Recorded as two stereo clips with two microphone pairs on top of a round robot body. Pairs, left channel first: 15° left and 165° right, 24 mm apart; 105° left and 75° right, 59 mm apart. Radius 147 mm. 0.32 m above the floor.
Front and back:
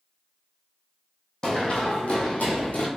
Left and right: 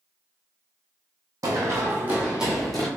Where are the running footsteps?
45° right, 0.9 m; by 2.9 s 25° left, 1.0 m.